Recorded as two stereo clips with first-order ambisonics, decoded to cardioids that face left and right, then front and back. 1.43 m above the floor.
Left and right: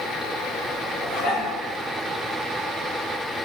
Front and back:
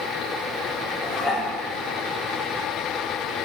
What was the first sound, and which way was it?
Dishes clattering, 60° left.